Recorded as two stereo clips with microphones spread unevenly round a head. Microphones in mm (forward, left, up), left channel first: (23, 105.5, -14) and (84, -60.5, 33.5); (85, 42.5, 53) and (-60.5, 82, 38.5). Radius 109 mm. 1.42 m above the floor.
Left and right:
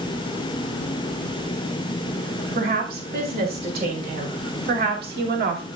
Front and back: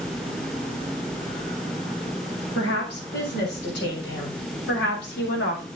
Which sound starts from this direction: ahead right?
A woman speaking, at 2.5 s.